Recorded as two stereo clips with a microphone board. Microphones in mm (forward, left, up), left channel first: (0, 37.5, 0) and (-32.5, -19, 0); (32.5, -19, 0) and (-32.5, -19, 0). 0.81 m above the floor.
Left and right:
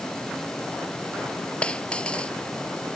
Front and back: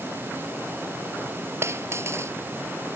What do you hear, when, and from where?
1.6 s a dropped coin: 135° left